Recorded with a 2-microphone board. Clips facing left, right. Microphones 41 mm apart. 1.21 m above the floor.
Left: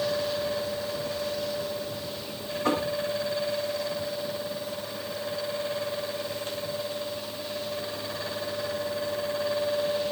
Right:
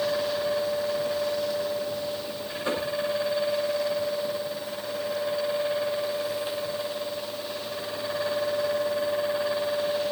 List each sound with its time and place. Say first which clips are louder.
2.6 s knocking: left 2 dB; 85° left, 9 m